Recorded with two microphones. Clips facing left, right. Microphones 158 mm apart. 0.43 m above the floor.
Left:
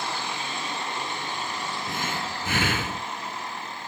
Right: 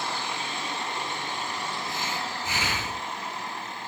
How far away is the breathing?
About 3 m.